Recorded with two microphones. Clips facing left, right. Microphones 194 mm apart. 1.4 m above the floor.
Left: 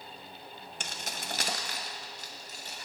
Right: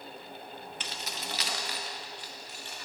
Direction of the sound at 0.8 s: 45° left (ahead or behind).